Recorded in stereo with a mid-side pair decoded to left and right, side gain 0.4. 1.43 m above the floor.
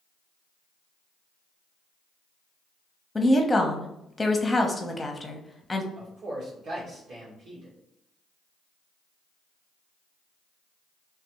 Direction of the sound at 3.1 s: 20° left.